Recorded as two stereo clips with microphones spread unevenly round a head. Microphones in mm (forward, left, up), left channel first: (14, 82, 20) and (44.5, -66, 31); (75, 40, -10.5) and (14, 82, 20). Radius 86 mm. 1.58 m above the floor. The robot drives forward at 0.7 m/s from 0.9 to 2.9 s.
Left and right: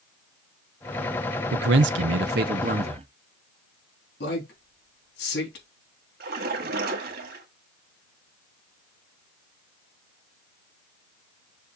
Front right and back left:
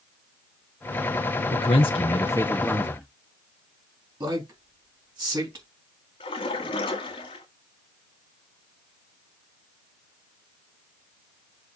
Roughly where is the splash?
Ahead right.